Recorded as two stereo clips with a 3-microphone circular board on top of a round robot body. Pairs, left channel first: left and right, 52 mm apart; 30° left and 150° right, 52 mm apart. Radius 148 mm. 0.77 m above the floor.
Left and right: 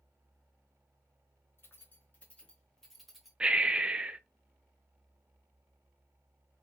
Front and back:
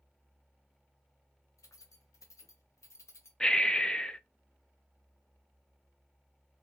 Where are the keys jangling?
45° left, 1.1 m; by 3.3 s 5° right, 1.1 m.